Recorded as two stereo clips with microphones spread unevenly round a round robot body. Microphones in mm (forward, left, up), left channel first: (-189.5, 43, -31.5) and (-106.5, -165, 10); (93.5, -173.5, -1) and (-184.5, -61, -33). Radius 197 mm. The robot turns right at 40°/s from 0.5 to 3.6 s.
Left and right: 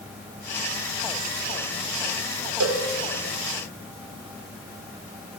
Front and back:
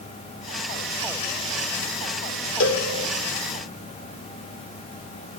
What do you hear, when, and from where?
2.6 s a cowbell: 70° right, 3.5 m; by 2.9 s 60° right, 3.5 m